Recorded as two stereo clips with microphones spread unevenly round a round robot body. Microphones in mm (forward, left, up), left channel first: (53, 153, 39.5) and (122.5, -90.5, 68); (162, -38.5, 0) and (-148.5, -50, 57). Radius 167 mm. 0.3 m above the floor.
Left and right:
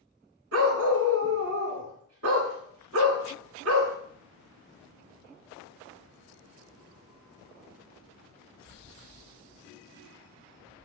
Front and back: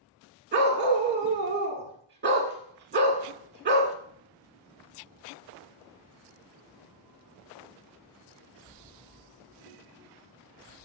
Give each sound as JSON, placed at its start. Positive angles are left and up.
{"t": 0.5, "sound": "a dog barking", "azimuth_deg": -120, "distance_m": 1.4}